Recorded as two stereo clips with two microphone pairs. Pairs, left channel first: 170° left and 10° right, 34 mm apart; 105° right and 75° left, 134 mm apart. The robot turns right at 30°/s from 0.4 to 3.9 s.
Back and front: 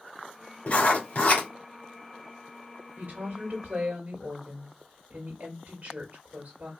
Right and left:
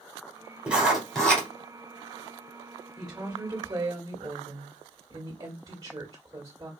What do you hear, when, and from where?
0.7 s writing: 150° left, 2 m; by 1.5 s 175° left, 2 m
3.0 s a woman speaking: 10° right, 1.9 m; by 6.7 s 20° left, 1.9 m